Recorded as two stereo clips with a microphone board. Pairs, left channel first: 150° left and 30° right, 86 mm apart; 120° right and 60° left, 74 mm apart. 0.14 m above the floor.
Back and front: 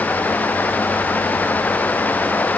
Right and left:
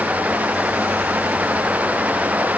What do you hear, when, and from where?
Only background noise.